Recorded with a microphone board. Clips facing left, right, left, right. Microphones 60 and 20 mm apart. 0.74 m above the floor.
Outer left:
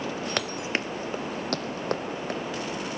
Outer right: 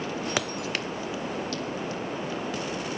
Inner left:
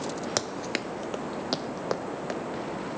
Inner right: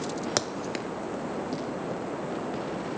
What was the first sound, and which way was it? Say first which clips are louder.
Running footsteps: even, inner left 1 dB; 5° right (ahead or behind).